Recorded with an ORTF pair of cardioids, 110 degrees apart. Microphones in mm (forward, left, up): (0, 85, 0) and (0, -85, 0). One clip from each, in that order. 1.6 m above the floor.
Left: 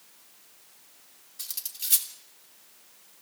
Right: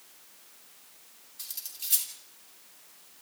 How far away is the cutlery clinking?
About 3 m.